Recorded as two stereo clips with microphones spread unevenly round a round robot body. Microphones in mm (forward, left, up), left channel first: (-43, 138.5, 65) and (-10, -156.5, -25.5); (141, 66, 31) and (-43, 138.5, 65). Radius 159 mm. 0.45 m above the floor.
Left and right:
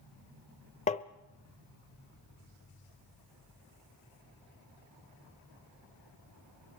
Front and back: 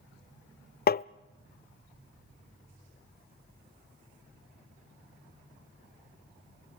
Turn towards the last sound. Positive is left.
turn(degrees=25)